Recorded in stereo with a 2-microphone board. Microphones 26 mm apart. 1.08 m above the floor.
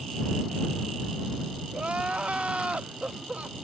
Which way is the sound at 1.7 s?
60° right (ahead or behind).